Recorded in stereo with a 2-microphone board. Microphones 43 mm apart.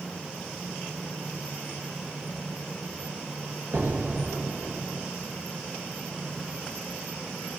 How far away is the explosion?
About 0.8 m.